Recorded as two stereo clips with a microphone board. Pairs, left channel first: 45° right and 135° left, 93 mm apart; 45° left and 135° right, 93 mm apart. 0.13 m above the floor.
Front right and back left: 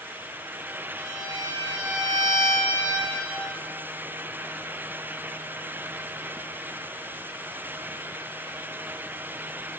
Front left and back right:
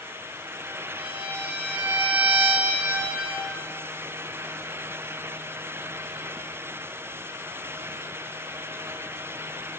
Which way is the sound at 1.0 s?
160° left.